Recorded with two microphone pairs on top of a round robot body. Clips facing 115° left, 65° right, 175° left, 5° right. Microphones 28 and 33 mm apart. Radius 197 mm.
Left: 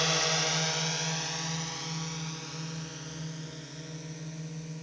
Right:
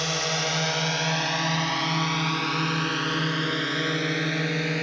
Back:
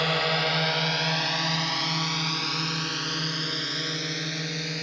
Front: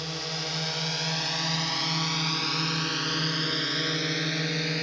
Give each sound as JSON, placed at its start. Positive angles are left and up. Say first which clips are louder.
{"t": 0.0, "sound": "a drone", "louder": "right 2 dB, back 9 dB", "azimuth_deg": -155}